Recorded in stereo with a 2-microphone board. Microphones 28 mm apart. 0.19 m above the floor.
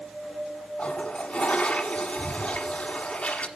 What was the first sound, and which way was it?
A toilet flushing, 45° left (ahead or behind).